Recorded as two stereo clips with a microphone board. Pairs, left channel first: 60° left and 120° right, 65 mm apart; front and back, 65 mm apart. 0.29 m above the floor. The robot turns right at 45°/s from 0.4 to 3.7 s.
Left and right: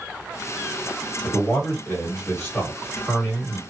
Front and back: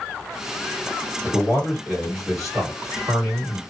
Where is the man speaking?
40° left, 1.6 m; by 3.6 s 150° left, 1.6 m.